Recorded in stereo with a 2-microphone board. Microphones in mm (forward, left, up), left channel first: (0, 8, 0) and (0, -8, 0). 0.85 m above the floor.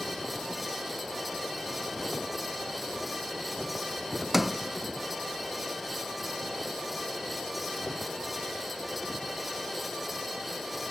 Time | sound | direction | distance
4.3 | a sliding door | 10° right (ahead or behind) | 0.5 m